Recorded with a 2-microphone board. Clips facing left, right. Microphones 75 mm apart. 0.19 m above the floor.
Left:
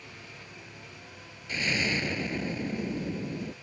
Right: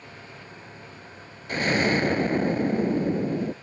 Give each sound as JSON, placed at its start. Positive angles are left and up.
{"t": 0.0, "sound": "an engine running", "side_deg": -30}
{"t": 1.5, "sound": "an explosion", "side_deg": -45}